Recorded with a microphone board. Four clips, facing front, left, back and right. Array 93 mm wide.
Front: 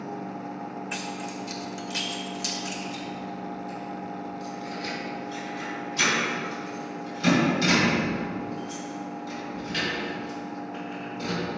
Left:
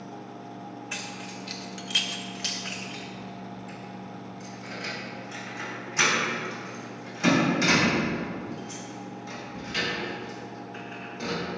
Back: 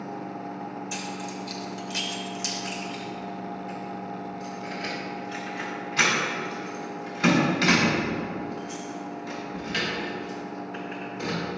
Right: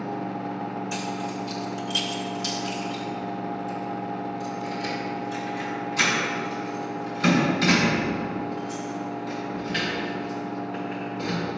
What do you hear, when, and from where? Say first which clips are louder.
0.9 s keys jangling: right 8 dB, even; 50° left, 1.6 m; by 11.4 s 165° left, 10 m